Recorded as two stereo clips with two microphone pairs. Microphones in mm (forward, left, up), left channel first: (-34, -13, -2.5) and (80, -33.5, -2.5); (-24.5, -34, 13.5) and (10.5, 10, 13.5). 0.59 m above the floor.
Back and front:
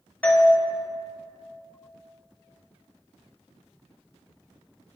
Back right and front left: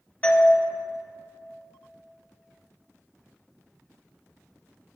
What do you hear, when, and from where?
0.2 s a doorbell: 125° right, 1.0 m